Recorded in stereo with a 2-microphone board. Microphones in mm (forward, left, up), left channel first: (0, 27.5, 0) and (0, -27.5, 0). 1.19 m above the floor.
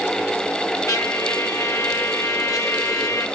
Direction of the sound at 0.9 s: 75° left (ahead or behind).